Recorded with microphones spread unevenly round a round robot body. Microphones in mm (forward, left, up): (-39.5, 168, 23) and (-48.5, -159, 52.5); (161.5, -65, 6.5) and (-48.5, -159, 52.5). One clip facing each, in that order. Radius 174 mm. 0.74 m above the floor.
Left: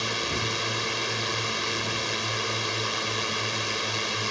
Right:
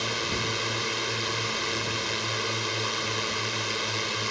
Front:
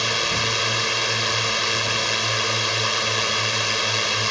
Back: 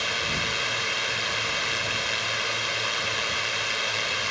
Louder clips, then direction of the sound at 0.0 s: Even, front 6 dB; straight ahead.